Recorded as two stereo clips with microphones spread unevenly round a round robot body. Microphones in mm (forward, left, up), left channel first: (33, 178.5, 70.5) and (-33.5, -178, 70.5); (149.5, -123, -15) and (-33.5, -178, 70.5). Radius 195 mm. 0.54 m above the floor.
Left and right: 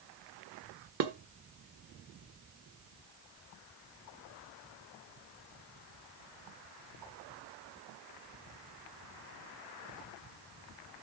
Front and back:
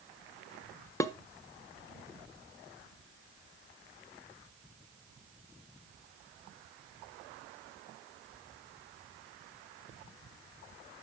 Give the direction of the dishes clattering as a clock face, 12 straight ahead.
2 o'clock.